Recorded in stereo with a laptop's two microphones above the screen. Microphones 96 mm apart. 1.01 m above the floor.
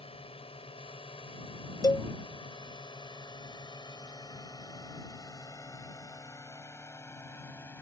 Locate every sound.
0.0 s a drone: 75° left (ahead or behind); by 7.8 s 25° left (ahead or behind)
1.8 s a cowbell: 40° left (ahead or behind)